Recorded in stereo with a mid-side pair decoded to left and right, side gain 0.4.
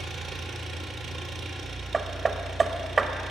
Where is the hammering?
45° right, 1.2 m.